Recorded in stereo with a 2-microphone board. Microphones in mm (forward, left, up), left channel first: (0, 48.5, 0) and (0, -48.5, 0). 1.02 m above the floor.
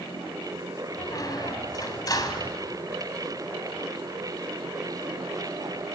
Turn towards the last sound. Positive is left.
turn(degrees=40)  # may be behind; listen again after turning